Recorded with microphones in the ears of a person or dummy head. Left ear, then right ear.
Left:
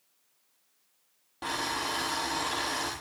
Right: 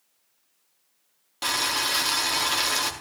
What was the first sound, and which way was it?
Boiling, 55° right (ahead or behind).